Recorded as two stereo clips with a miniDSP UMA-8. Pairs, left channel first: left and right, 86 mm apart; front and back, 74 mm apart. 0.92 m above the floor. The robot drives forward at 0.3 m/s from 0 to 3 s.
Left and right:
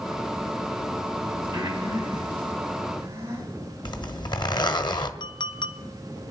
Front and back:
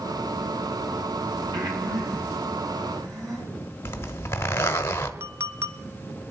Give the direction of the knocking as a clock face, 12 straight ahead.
No knocking in this recording.